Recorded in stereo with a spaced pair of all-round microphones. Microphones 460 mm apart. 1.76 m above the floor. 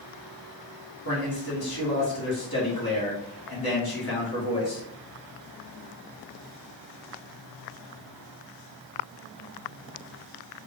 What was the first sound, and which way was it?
A man speaking, 50° left (ahead or behind).